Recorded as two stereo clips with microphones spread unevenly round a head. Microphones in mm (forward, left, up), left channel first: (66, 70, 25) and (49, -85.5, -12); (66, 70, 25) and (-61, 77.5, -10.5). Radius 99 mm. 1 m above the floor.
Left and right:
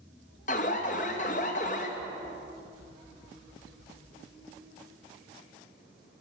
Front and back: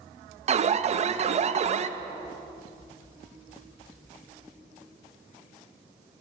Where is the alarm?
140° left, 0.6 m.